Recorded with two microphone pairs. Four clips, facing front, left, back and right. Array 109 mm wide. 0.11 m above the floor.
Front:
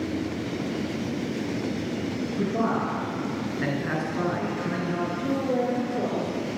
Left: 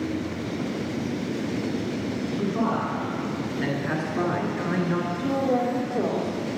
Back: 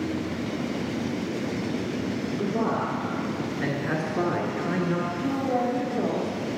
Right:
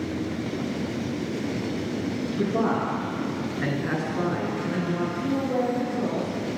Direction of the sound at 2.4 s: 65° right.